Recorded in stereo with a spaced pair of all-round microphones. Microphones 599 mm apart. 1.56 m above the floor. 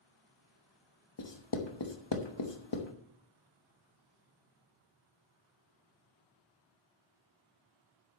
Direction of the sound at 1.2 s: 45° left (ahead or behind).